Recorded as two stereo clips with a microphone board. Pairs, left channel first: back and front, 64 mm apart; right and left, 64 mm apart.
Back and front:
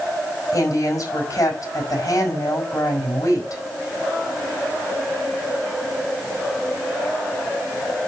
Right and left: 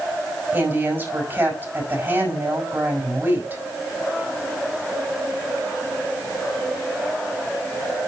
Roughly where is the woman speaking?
Behind left.